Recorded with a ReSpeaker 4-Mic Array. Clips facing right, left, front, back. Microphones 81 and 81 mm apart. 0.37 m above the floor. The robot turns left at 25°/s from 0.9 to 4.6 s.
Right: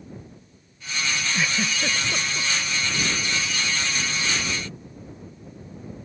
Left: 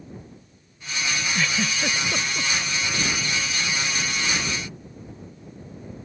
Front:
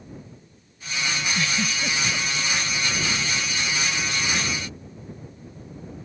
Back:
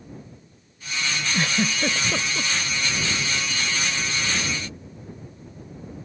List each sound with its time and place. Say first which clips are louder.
1.3 s a giggle: left 1 dB, back 2 dB; 170° right; by 2.5 s 160° left